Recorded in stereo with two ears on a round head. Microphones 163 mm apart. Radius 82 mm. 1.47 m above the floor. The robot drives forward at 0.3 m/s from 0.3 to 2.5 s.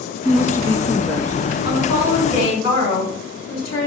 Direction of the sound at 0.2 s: 15° left (ahead or behind).